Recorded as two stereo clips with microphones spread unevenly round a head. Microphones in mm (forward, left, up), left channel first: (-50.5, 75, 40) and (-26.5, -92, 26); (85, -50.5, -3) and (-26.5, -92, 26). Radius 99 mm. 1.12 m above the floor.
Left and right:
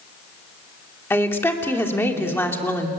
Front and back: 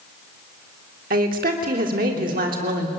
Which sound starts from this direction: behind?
A woman speaking, at 1.1 s.